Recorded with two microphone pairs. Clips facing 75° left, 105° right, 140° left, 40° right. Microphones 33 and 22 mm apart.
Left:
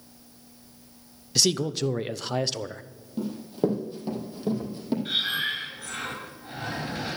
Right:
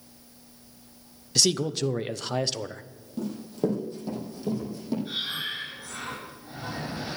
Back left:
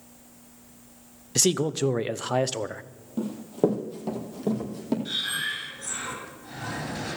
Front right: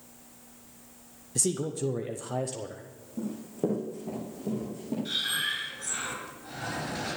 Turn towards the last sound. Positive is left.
turn(degrees=50)